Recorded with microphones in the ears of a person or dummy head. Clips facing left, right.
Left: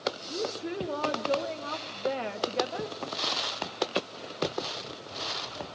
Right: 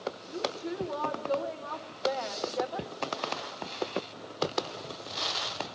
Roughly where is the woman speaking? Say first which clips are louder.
Right 1 dB; left.